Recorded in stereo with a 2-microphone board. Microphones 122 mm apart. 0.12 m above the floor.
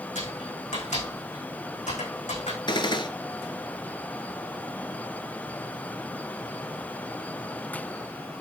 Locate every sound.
0.1 s typing on a keyboard: 80° left, 6.5 m
2.7 s a gunshot: 40° left (ahead or behind), 1.0 m